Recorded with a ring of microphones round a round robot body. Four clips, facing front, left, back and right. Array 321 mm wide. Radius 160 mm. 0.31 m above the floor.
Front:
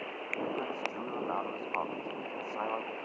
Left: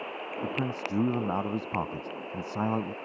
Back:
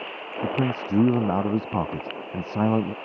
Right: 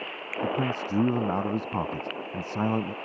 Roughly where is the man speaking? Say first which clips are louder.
Right 5 dB, back 10 dB; behind.